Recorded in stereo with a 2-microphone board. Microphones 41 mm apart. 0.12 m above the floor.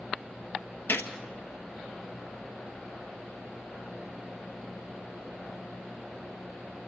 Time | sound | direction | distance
0.9 | a gunshot | 60° left (ahead or behind) | 1.1 m